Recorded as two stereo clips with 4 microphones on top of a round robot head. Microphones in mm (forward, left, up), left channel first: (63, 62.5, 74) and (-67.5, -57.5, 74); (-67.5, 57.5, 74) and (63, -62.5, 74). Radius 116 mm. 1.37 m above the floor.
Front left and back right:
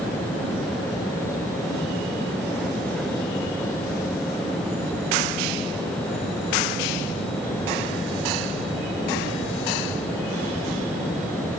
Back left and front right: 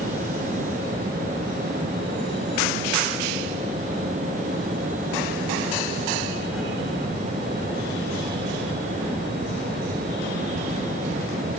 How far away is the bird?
I don't hear a bird.